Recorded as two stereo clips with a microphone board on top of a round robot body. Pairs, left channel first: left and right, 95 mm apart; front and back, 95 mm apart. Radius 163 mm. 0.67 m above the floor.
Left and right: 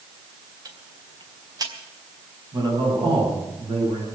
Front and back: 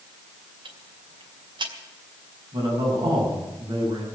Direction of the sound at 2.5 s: 130° right.